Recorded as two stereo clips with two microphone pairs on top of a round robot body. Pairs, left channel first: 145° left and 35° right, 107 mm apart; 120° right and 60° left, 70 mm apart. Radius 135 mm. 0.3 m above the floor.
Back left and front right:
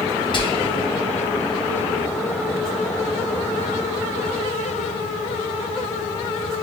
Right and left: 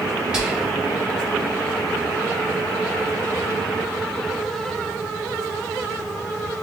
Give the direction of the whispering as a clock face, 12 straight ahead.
8 o'clock.